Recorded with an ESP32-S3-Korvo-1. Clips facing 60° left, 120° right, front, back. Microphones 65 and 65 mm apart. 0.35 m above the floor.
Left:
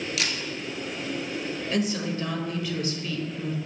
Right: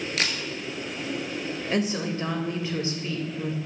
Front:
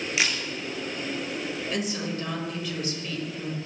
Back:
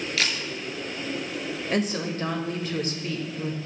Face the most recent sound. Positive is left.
turn(degrees=-165)